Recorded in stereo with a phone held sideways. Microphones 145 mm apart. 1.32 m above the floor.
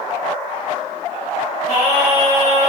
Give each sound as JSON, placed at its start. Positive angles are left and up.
{"t": 1.7, "sound": "singing", "side_deg": 85, "distance_m": 3.0}